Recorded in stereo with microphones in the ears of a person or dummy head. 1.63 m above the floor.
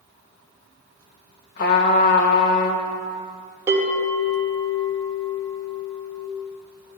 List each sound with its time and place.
1.6 s a trumpet: 55° left (ahead or behind), 1.5 m
3.7 s a bell: 20° right (ahead or behind), 3 m